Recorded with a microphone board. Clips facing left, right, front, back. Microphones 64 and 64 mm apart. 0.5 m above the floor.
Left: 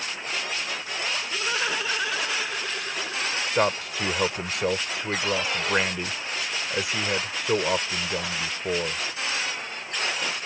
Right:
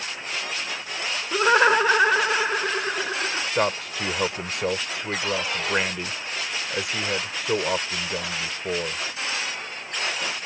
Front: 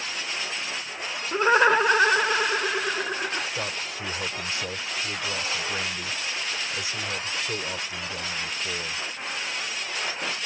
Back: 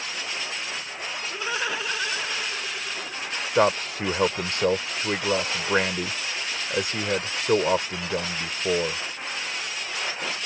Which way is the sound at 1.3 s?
50° right.